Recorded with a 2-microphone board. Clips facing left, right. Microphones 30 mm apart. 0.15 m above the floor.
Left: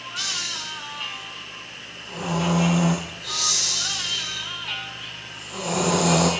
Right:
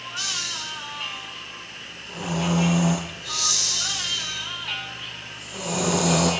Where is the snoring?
80° left, 4 m.